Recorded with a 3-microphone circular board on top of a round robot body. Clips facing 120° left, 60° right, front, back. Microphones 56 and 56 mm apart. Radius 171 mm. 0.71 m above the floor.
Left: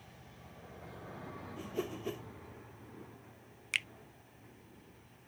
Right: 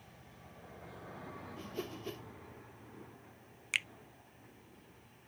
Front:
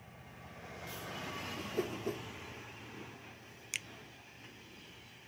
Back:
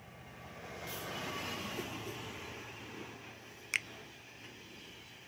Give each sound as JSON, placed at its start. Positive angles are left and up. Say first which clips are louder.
{"t": 1.6, "sound": "a whoosh", "louder": "left 5 dB, front 4 dB", "azimuth_deg": 40}
{"t": 3.7, "sound": "a finger snap", "louder": "even, back 7 dB", "azimuth_deg": -150}